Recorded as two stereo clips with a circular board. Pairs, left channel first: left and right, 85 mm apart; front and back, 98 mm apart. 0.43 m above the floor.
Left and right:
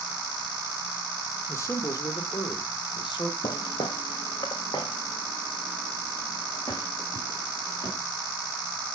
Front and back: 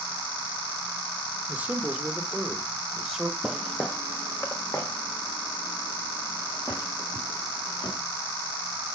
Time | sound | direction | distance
1.5 | a man speaking | 115° left | 0.8 m
3.4 | footsteps | 95° left | 0.7 m